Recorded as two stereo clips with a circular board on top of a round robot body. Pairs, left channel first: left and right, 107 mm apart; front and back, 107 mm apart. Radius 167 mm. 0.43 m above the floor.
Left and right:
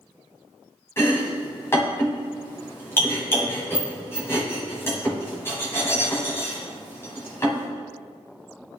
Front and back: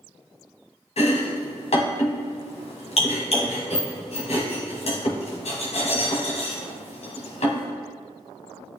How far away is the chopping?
About 1.8 m.